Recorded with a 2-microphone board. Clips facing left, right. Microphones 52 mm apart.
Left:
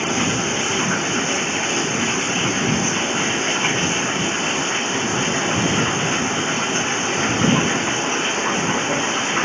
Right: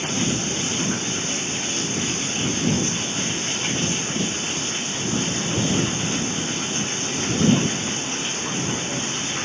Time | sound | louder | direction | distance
0.0 | running water | left 4 dB | 45° left (ahead or behind) | ?